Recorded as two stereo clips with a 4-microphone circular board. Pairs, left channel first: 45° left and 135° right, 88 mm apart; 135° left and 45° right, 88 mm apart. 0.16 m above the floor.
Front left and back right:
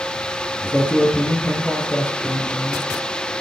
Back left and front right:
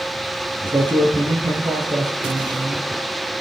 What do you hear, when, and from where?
0.6 s a man speaking: 25° right, 4 m